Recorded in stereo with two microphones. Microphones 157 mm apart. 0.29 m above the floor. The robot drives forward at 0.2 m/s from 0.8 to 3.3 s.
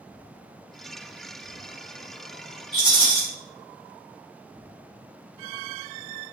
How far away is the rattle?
About 1.7 m.